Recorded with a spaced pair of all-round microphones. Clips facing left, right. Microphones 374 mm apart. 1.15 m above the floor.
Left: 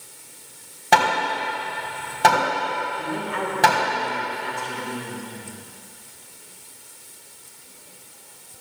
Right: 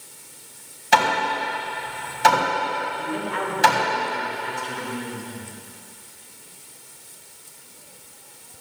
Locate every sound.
0.9 s hammering: 65° left (ahead or behind), 4 m
3.0 s a man speaking: 50° left (ahead or behind), 5.5 m